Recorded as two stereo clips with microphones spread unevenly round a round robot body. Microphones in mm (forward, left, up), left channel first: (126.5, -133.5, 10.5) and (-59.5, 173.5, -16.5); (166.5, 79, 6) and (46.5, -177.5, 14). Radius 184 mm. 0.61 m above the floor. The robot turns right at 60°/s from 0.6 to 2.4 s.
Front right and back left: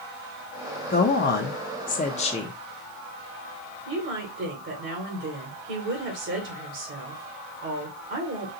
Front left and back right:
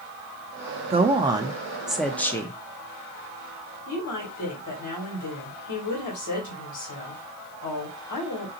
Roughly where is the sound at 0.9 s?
Right.